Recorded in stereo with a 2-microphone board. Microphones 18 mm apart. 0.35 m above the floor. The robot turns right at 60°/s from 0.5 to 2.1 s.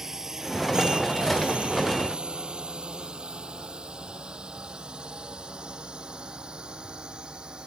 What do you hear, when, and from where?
0.0 s a drone: 25° right (ahead or behind); by 7.7 s 50° right (ahead or behind)